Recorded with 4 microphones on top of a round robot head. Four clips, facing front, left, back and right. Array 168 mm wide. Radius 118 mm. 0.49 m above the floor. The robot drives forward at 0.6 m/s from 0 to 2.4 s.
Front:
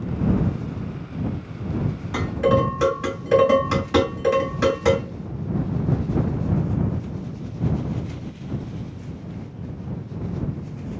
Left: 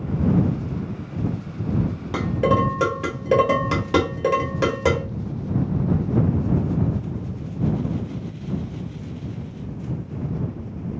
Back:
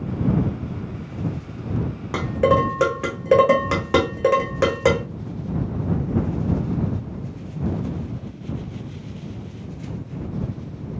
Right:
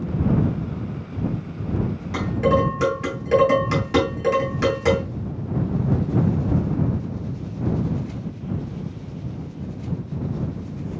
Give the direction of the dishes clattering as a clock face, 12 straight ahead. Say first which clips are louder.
Even, back 2 dB; 7 o'clock.